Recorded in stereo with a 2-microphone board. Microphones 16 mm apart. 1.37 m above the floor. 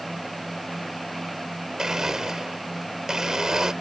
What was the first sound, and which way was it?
A blender, 45° right (ahead or behind).